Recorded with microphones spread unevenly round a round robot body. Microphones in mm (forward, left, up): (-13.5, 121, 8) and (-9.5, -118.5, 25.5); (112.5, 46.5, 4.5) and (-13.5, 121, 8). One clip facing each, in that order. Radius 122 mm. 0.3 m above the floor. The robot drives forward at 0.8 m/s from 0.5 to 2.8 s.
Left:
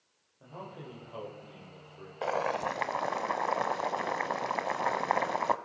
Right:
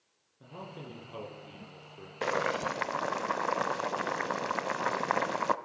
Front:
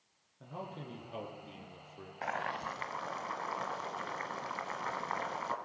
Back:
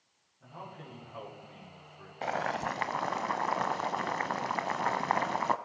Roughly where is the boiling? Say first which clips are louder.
Right 1 dB, back 6 dB; behind right.